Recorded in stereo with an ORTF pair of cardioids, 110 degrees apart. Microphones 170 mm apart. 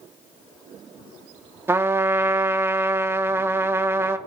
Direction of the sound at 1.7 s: 15° right.